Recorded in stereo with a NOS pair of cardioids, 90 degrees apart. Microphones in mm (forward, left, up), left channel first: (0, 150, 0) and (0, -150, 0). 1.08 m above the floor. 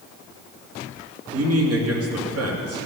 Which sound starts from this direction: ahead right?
A man speaking, at 1.3 s.